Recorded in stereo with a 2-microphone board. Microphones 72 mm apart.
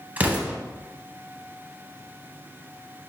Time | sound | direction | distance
0.2 | an explosion | 25° right (ahead or behind) | 0.8 m